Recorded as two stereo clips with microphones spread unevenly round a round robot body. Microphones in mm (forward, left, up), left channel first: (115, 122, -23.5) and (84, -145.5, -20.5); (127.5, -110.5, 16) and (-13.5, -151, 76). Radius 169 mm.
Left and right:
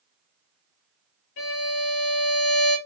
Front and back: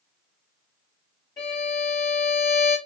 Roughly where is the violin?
Left.